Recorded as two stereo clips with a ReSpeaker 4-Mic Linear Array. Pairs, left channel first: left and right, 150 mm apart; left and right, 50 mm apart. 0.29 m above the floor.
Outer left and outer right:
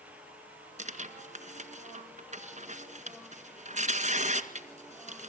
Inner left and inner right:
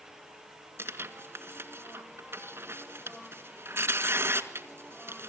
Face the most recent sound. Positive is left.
turn(degrees=-55)  # may be behind; listen again after turning